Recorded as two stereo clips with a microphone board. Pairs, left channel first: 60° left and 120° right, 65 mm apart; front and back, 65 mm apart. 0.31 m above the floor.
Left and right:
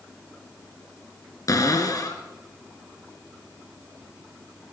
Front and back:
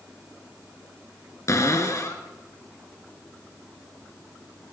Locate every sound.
1.5 s a cupboard door: 35° left, 1.9 m